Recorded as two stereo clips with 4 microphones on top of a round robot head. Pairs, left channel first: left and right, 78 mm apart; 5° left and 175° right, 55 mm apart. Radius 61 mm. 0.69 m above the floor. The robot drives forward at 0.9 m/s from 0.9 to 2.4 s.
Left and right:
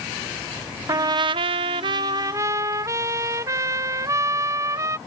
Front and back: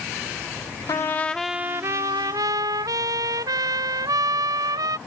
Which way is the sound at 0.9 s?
40° right.